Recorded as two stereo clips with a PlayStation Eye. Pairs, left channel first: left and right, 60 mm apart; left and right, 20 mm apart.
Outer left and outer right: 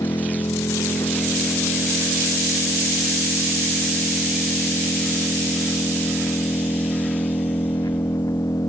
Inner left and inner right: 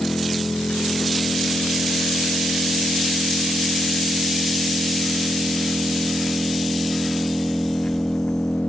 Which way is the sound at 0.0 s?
90° left.